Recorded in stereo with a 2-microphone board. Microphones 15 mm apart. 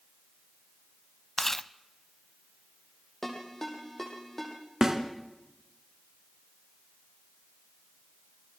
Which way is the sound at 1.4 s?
20° left (ahead or behind).